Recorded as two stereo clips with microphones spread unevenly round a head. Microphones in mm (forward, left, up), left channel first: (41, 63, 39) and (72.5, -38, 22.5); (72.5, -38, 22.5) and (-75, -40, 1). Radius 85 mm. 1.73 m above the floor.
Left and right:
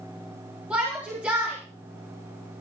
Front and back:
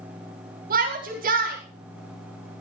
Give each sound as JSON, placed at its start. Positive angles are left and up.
{"t": 0.7, "sound": "a shout", "azimuth_deg": -155, "distance_m": 5.0}